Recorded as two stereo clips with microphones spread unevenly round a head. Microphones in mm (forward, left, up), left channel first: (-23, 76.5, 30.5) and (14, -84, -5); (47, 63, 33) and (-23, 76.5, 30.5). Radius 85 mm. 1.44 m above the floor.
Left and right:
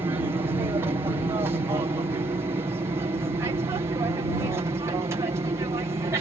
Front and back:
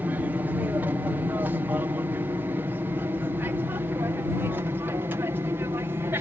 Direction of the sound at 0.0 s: 135° right.